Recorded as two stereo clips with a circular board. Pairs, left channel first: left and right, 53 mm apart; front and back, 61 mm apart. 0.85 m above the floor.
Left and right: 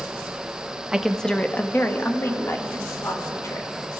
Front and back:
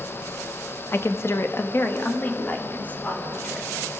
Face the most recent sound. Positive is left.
turn(degrees=65)